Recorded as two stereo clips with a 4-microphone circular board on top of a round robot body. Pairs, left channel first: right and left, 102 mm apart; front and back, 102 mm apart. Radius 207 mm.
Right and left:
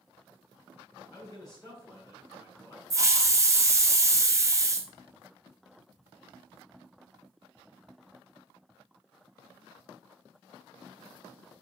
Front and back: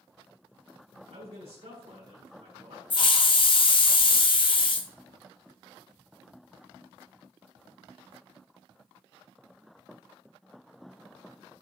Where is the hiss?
30° left, 1.0 m.